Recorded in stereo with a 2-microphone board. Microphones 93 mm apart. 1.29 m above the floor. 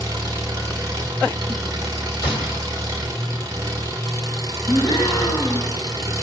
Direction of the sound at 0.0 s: 40° right (ahead or behind).